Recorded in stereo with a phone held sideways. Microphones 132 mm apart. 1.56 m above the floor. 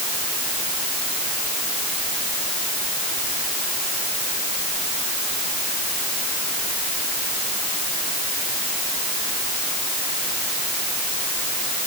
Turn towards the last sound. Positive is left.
No sound to turn to.